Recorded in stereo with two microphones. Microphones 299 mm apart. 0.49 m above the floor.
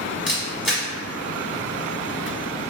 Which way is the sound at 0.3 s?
Centre (ahead or behind).